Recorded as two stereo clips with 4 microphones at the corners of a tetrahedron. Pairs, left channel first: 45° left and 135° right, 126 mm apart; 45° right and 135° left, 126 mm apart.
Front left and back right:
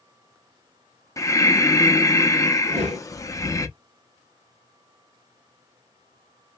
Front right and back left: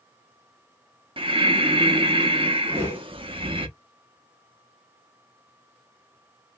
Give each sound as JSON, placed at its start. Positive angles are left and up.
{"t": 1.2, "sound": "breathing", "azimuth_deg": 105, "distance_m": 0.6}
{"t": 2.7, "sound": "a whoosh", "azimuth_deg": -155, "distance_m": 1.3}